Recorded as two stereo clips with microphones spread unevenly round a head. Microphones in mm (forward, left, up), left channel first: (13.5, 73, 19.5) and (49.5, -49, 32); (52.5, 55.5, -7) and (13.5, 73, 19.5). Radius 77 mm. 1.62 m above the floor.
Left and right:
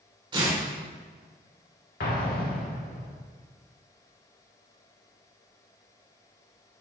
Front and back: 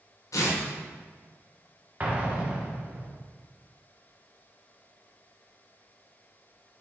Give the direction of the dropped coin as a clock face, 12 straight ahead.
I don't hear a dropped coin.